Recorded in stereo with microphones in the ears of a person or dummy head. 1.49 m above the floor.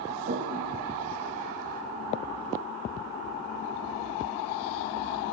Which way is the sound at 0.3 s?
45° right (ahead or behind).